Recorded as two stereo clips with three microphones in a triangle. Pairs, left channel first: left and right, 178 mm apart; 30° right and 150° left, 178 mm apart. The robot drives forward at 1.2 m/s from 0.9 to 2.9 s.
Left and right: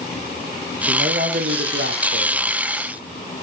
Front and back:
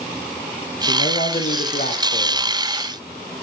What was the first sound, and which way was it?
A man speaking, 60° right.